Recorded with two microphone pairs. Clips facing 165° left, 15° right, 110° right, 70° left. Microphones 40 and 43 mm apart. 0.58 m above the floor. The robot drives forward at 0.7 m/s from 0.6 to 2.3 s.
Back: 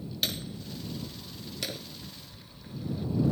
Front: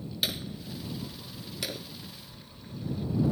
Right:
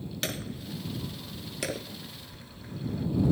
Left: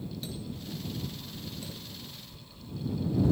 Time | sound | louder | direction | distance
0.2 | hammering | front 1 dB, right 4 dB | 100° right | ?